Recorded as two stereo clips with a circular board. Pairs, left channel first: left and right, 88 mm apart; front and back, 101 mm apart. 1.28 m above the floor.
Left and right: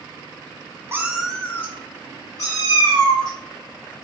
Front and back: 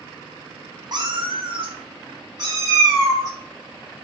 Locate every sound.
0.9 s a cat meowing: 145° right, 0.7 m; by 4.0 s 120° left, 3.5 m